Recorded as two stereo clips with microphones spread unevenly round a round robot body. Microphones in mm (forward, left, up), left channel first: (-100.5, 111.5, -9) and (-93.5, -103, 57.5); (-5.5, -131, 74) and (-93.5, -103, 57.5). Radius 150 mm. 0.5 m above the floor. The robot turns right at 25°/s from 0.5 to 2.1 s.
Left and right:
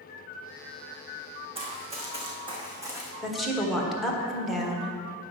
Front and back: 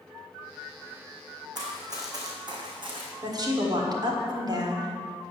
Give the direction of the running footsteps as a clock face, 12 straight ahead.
5 o'clock.